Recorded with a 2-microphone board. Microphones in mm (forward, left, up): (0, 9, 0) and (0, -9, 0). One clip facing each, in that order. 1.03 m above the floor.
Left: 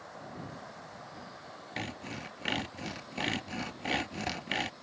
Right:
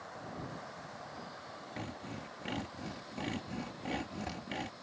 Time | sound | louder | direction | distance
1.8 | sawing | left 6 dB | 55° left (ahead or behind) | ?